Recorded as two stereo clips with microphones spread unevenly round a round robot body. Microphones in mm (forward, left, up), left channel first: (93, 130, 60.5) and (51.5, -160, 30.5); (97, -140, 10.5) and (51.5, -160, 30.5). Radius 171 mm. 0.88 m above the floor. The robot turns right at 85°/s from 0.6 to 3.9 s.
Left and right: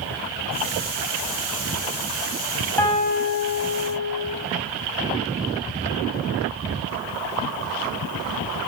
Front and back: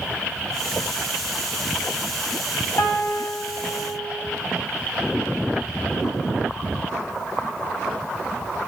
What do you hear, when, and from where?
2.8 s a piano: straight ahead, 6.5 m; by 4.2 s 95° left, 6.5 m